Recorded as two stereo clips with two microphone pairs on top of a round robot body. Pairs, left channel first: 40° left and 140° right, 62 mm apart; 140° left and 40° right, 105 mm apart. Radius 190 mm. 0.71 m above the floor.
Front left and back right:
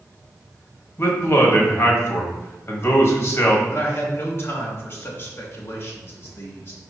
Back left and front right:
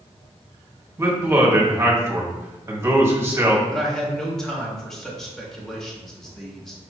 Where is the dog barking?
I don't hear a dog barking.